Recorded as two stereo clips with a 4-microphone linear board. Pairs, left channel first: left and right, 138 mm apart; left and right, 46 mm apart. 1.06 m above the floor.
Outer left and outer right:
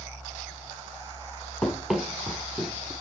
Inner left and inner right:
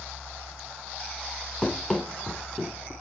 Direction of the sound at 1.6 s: 5° left (ahead or behind).